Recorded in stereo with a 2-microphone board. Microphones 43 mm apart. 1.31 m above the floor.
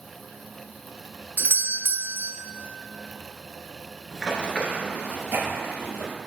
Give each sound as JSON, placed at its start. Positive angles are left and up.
{"t": 1.4, "sound": "a doorbell", "side_deg": -45, "distance_m": 0.5}
{"t": 4.1, "sound": "running footsteps", "side_deg": -10, "distance_m": 1.3}